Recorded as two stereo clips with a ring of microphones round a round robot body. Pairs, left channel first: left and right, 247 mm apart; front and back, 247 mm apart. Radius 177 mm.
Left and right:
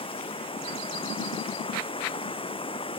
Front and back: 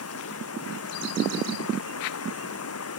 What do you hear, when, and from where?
0.0 s running water: 20° left